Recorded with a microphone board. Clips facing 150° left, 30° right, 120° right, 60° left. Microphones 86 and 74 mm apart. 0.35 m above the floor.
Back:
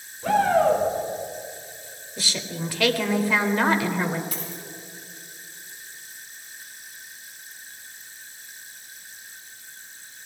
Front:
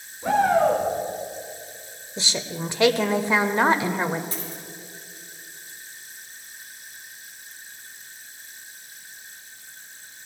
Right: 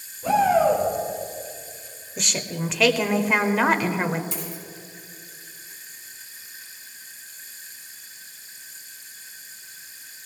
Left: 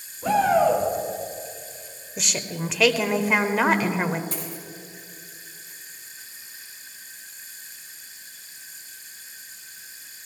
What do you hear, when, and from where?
0.2 s a shout: 35° left, 5 m
2.2 s a woman speaking: 30° right, 0.9 m
4.3 s a dropped coin: 25° left, 5.5 m